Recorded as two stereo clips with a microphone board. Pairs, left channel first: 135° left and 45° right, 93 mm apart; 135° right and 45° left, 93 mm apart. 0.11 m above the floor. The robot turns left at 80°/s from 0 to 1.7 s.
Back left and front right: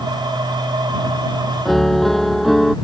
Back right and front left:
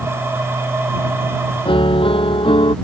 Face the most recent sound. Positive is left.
turn(degrees=-135)